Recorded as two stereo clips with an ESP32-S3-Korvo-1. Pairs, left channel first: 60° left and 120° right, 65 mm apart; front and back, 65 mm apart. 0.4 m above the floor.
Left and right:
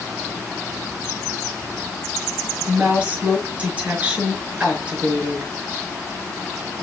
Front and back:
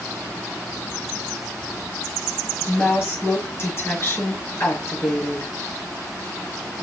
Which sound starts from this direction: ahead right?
A woman speaking, at 2.7 s.